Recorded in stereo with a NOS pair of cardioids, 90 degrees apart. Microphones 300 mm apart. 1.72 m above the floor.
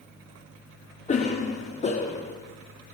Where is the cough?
25° left, 0.9 m.